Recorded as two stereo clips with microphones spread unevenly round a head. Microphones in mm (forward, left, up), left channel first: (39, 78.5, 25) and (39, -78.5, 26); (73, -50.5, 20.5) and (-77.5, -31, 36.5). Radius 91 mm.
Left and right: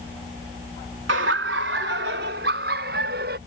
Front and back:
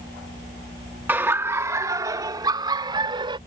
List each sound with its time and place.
1.1 s laughter: 110° right; by 3.4 s 130° right